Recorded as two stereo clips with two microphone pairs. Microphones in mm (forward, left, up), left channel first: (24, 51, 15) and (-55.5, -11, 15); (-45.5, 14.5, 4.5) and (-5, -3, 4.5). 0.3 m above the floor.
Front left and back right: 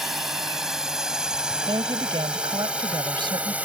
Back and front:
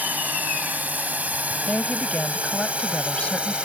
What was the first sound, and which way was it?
A drone, 55° right.